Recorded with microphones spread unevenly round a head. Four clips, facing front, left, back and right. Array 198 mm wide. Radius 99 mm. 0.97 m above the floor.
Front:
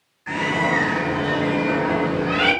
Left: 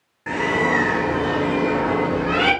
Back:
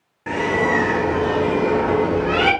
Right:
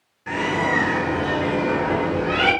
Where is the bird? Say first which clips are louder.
Left 2 dB, back 3 dB; 160° left, 2.0 m.